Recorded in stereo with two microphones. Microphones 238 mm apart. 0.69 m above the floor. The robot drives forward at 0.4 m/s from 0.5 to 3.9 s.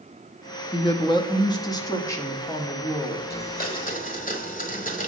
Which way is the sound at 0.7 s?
20° left (ahead or behind).